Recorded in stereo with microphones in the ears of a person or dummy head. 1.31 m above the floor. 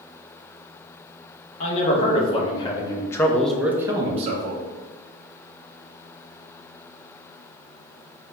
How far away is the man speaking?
About 1.5 m.